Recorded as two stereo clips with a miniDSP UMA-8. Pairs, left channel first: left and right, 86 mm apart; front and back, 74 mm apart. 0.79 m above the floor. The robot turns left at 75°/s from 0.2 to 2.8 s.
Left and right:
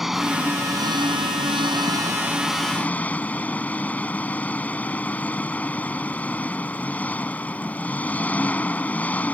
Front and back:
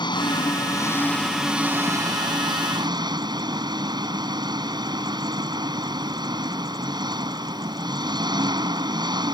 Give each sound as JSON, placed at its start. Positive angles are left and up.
{"t": 0.0, "sound": "an engine running", "azimuth_deg": -5}